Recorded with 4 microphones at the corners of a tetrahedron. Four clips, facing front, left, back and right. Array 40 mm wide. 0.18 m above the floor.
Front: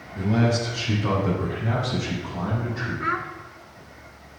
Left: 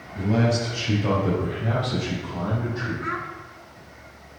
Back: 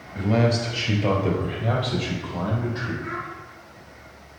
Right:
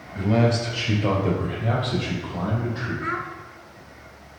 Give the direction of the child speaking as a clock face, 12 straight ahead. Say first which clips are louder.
Right 1 dB, front 5 dB; 12 o'clock.